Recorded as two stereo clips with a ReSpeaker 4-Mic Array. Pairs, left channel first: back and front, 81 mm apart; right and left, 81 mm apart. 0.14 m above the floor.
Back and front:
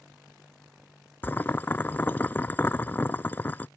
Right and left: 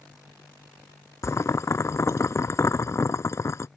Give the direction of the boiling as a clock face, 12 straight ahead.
4 o'clock.